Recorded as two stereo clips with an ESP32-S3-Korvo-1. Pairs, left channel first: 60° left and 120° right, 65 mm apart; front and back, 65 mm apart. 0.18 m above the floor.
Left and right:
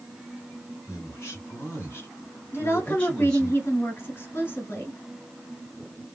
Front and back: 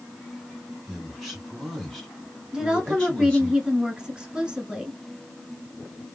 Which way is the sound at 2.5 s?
105° left.